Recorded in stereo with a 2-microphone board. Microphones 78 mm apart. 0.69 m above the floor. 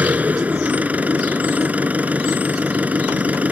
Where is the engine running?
20° right (ahead or behind).